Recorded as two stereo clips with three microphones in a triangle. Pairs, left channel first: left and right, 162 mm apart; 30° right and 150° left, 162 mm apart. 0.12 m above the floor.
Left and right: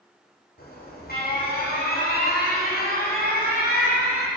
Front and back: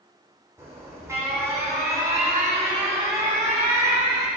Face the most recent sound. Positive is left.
turn(degrees=75)